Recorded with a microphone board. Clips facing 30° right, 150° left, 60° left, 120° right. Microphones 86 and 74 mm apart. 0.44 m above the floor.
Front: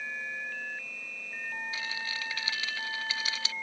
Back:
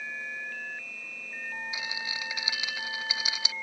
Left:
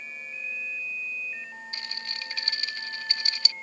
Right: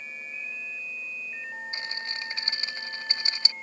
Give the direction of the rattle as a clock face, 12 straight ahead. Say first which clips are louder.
Even, right 4 dB; 5 o'clock.